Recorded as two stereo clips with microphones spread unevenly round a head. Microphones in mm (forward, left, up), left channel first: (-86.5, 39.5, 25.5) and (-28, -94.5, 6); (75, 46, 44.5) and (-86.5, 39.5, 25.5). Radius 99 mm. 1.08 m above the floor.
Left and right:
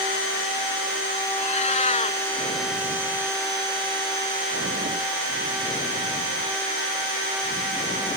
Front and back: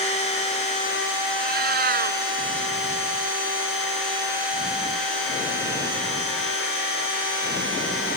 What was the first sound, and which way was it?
A cat meowing, 155° left.